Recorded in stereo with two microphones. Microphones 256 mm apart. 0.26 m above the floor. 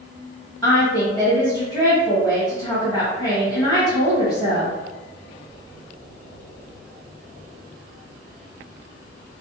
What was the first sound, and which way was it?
A woman speaking, 15° left (ahead or behind).